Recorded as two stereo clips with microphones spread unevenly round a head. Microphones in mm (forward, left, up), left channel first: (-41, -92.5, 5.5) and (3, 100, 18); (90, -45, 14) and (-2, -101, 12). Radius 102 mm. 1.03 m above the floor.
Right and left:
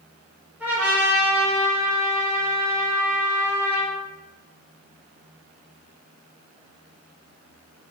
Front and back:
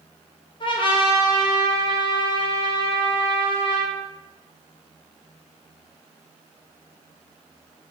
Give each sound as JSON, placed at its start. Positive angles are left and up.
{"t": 0.6, "sound": "a trumpet", "azimuth_deg": -10, "distance_m": 0.8}